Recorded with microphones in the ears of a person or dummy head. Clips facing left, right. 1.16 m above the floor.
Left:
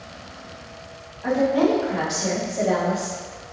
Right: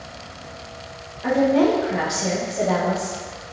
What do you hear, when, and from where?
1.2 s a woman speaking: 35° right (ahead or behind), 1.5 m; by 3.2 s 25° left (ahead or behind), 1.0 m